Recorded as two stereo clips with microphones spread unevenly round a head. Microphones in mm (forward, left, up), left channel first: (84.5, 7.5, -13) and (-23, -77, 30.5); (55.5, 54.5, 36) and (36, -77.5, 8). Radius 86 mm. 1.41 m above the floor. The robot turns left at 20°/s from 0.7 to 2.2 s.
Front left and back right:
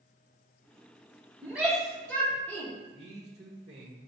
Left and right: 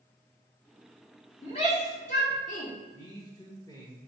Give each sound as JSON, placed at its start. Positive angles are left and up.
{"t": 1.4, "sound": "a shout", "azimuth_deg": 140, "distance_m": 0.8}
{"t": 2.9, "sound": "a man speaking", "azimuth_deg": 155, "distance_m": 0.7}